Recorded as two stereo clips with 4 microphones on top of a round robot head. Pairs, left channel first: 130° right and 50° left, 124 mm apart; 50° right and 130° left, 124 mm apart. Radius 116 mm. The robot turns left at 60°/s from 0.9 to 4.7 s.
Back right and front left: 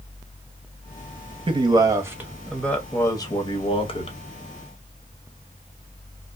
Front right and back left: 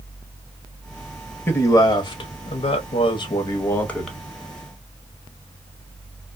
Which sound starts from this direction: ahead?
A man speaking, at 1.5 s.